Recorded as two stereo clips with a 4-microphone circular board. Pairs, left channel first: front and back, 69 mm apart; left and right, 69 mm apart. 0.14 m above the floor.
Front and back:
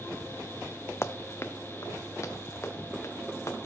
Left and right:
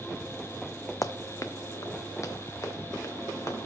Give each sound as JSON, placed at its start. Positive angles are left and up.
{"t": 1.0, "sound": "running footsteps", "azimuth_deg": 50, "distance_m": 0.6}